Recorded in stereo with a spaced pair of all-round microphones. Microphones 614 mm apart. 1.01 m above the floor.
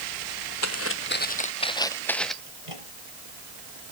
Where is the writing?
I don't hear writing.